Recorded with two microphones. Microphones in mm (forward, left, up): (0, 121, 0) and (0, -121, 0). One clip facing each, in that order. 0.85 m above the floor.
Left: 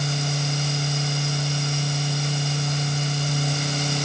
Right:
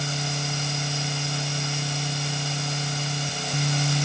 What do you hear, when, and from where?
Only background noise.